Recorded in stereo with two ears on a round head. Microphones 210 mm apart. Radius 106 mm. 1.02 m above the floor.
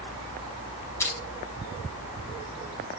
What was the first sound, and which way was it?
Crushing, 10° left (ahead or behind).